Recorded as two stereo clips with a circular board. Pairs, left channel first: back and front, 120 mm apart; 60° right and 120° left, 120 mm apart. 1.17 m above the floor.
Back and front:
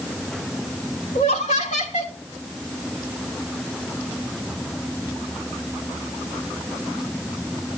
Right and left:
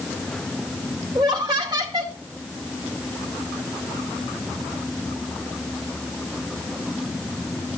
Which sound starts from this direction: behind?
Laughter, at 1.1 s.